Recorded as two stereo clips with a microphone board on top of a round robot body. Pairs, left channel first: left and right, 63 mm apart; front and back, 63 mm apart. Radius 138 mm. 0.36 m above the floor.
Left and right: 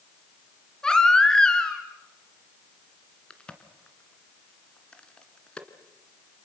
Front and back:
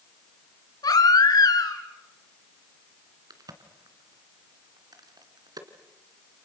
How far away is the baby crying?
About 3 m.